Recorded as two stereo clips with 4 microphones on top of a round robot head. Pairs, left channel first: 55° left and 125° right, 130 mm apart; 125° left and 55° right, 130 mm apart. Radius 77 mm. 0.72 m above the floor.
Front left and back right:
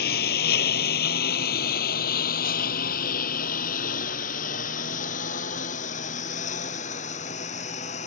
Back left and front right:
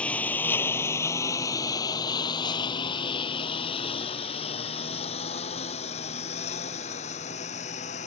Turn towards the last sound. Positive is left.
turn(degrees=90)